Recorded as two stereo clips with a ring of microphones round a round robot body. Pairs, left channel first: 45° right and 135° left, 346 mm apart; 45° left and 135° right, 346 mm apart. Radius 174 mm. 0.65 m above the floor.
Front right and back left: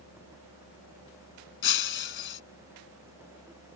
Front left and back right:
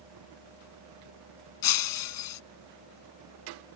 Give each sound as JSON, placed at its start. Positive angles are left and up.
{"t": 1.6, "sound": "breaking glass", "azimuth_deg": 10}